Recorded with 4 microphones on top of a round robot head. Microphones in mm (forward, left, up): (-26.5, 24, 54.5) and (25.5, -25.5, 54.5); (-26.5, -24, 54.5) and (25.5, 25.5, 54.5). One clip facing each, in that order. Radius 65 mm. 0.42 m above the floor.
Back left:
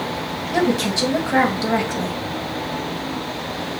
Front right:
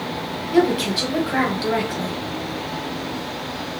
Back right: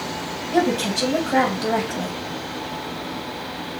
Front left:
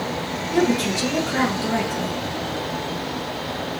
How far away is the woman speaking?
About 2.5 m.